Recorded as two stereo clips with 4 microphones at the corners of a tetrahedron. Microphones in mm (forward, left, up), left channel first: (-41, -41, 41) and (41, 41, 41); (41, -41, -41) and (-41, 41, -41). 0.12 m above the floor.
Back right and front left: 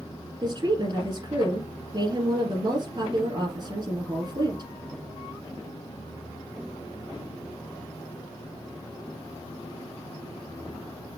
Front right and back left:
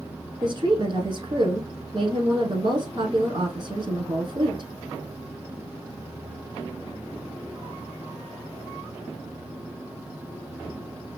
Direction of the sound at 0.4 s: 90° left.